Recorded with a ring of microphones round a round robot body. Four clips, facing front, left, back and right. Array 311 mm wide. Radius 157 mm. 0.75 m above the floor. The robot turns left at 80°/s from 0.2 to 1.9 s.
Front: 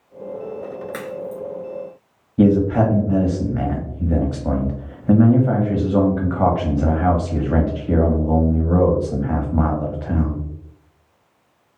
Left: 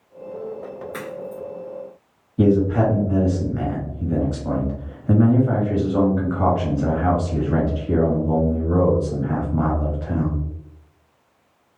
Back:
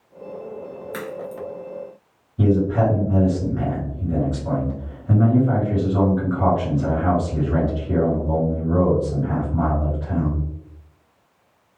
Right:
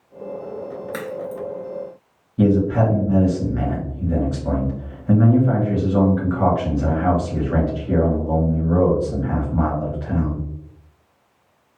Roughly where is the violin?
I don't hear a violin.